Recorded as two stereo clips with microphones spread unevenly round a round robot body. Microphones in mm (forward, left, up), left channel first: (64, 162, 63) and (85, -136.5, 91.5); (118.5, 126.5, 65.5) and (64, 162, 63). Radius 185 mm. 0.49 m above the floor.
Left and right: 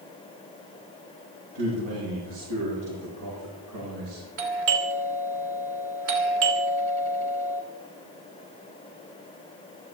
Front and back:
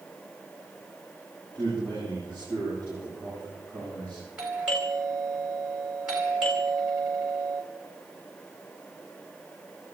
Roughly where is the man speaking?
Right.